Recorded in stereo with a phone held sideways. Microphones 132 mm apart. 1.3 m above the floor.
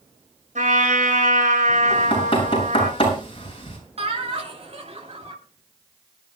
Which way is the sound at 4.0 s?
55° right (ahead or behind).